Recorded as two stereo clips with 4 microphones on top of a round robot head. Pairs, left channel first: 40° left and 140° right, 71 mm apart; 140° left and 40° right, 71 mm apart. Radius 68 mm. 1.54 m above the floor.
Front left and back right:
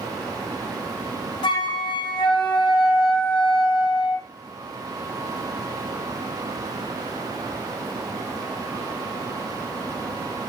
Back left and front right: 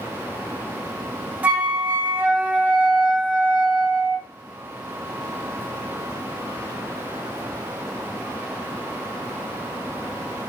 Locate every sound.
1.4 s a flute: 30° left, 0.5 m